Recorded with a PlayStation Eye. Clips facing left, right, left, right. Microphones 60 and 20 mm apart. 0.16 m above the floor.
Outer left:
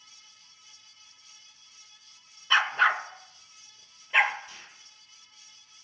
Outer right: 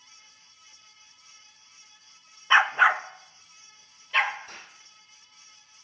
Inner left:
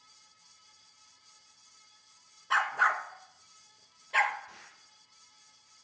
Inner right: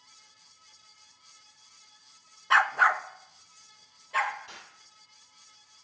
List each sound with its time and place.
2.5 s a dog barking: 25° right (ahead or behind), 0.6 m; by 4.4 s 20° left (ahead or behind), 1.2 m
4.5 s an explosion: 50° right (ahead or behind), 2.5 m